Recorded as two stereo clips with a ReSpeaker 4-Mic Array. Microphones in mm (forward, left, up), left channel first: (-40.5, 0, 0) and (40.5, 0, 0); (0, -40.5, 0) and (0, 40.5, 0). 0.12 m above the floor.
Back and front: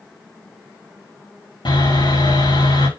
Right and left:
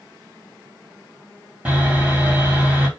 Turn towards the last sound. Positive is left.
turn(degrees=165)